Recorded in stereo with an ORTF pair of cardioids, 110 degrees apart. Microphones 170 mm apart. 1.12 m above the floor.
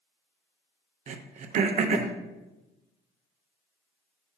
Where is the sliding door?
I don't hear a sliding door.